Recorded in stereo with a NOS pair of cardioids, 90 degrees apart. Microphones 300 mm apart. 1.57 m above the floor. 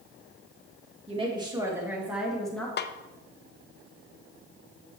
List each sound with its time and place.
1.1 s a woman speaking: 20° right, 2.5 m; by 2.7 s 5° left, 3 m
2.8 s a snare drum: 35° left, 0.6 m